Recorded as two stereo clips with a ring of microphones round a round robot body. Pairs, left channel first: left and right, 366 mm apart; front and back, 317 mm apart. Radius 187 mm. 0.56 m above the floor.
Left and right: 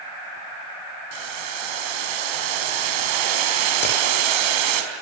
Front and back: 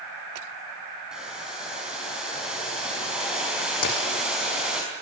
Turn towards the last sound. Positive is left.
turn(degrees=25)